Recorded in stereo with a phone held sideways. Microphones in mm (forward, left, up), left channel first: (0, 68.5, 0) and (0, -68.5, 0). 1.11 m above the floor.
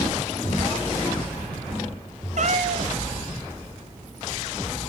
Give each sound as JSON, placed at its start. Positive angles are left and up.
{"t": 2.4, "sound": "a cat meowing", "side_deg": -60, "distance_m": 0.7}